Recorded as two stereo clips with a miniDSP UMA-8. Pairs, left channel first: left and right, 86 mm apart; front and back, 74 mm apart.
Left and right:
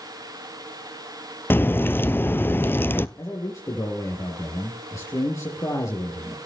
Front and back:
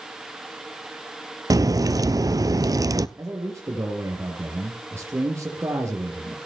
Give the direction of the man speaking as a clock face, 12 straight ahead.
8 o'clock.